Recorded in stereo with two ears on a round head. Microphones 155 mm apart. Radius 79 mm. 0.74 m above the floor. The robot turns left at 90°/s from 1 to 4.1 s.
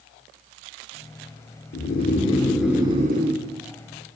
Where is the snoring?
80° left, 1.3 m; by 3.4 s 75° right, 1.3 m.